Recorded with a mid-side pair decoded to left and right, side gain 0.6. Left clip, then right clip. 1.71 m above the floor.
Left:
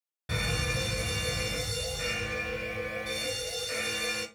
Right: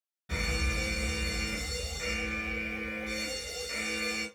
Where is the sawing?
No sawing in this recording.